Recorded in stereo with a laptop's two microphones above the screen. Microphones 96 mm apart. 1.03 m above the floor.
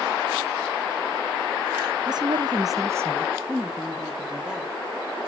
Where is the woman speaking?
45° right (ahead or behind), 0.6 m; by 5.3 s 5° right (ahead or behind), 3 m.